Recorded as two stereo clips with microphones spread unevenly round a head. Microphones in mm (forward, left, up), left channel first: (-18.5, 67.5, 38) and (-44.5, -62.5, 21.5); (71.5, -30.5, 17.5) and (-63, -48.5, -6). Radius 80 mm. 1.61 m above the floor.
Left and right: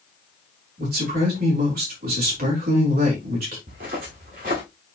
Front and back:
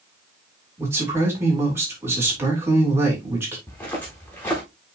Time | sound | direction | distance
0.8 | a man speaking | 100° right | 4.5 m
3.7 | footsteps | 65° right | 5 m